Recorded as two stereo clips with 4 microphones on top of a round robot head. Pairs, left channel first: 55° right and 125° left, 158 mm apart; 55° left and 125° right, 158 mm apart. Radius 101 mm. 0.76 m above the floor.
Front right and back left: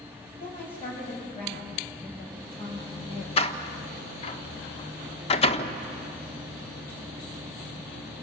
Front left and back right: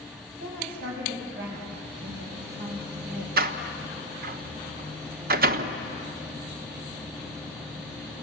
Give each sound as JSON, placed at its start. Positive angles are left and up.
{"t": 0.4, "sound": "a woman speaking", "azimuth_deg": -105, "distance_m": 6.5}
{"t": 3.4, "sound": "a door slam", "azimuth_deg": -105, "distance_m": 1.2}